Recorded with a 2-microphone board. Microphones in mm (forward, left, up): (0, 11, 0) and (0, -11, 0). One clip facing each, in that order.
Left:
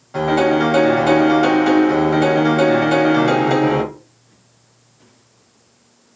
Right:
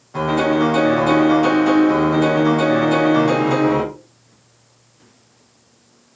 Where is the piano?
15° left (ahead or behind), 1.1 m.